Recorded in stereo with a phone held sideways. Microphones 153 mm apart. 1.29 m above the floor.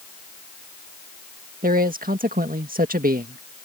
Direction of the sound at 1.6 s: 70° right (ahead or behind).